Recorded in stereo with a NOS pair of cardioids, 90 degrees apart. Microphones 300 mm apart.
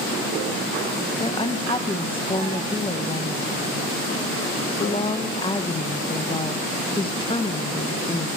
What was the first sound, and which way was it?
A woman speaking, 15° left.